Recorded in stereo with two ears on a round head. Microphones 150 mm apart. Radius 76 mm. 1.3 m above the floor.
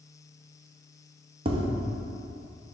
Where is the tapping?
35° right (ahead or behind), 0.9 m.